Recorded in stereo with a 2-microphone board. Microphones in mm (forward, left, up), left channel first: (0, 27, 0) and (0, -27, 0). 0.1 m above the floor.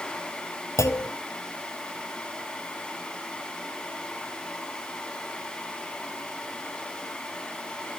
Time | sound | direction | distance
0.8 | a clunk | 70° left (ahead or behind) | 0.8 m